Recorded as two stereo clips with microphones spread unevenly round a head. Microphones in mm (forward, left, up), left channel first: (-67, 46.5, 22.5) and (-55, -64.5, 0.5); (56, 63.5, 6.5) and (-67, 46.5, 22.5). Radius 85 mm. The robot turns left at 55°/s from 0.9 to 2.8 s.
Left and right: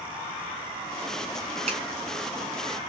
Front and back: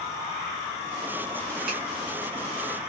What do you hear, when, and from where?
1.7 s a finger snap: 110° right, 1.7 m; by 1.8 s 115° right, 1.7 m